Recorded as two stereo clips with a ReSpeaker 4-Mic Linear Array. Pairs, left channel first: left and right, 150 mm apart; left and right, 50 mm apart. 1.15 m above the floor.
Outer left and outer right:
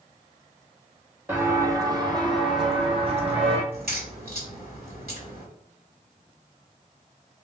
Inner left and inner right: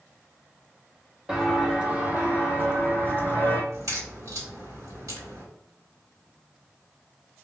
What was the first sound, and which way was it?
Footsteps, 15° right (ahead or behind).